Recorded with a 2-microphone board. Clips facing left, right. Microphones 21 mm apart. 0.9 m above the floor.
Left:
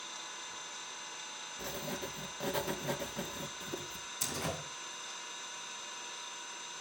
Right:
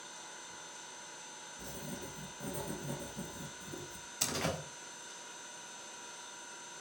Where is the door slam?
25° right (ahead or behind), 3.5 m.